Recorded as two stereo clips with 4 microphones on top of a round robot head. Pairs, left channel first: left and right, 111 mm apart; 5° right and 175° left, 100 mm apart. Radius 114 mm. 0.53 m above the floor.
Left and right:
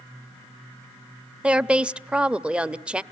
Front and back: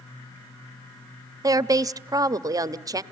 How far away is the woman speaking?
About 0.7 m.